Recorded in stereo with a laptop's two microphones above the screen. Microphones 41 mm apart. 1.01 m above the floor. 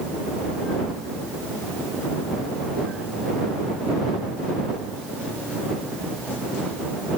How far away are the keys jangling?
No keys jangling in this recording.